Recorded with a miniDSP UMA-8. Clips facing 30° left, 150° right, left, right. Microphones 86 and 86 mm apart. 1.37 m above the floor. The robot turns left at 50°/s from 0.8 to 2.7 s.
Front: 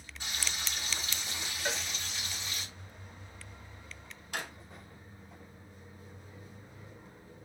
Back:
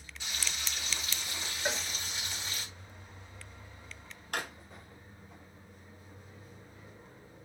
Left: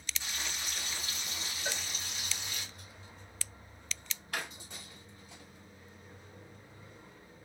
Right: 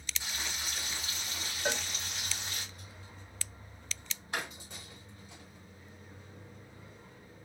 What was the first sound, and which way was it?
Frying, 15° right.